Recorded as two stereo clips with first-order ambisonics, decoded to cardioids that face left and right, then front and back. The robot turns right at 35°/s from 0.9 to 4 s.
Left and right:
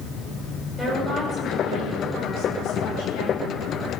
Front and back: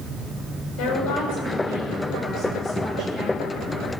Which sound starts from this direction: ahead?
A woman speaking, at 0.8 s.